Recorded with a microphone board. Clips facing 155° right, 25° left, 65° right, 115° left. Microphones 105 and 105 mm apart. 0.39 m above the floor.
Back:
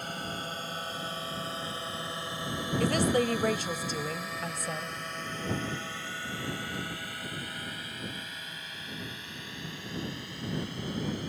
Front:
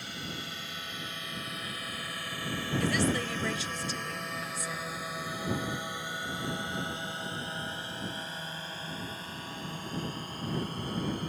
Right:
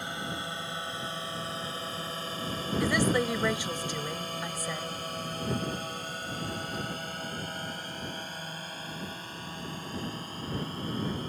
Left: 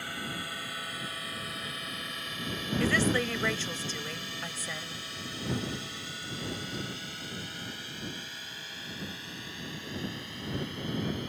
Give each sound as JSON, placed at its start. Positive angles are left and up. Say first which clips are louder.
{"t": 0.0, "sound": "a drone", "louder": "back 4 dB, right 2 dB", "azimuth_deg": -130}
{"t": 2.8, "sound": "a woman speaking", "louder": "back 4 dB, right 1 dB", "azimuth_deg": -140}